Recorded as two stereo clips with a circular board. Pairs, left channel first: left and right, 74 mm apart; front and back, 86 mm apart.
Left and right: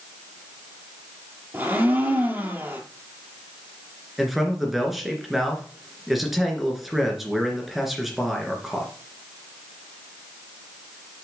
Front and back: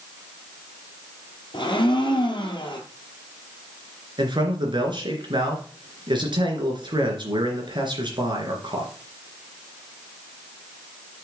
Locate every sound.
1.5 s a blender: 25° right, 2 m
4.2 s a man speaking: straight behind, 3 m